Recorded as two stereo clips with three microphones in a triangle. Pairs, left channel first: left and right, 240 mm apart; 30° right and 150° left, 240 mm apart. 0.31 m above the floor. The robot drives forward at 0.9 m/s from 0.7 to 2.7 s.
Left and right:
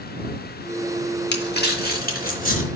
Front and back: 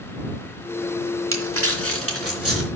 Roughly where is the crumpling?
Behind left.